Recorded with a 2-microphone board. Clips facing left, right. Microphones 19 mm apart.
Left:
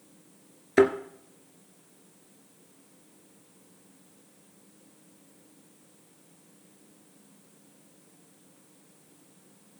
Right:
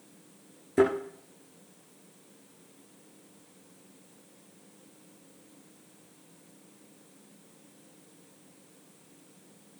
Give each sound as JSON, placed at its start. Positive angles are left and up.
{"t": 0.8, "sound": "a thud", "side_deg": 50, "distance_m": 1.6}